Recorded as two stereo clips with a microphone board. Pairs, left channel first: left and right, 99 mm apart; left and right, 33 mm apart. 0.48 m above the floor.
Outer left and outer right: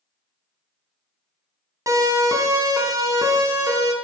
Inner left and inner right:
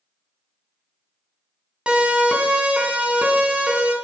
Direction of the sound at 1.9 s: 35° right (ahead or behind).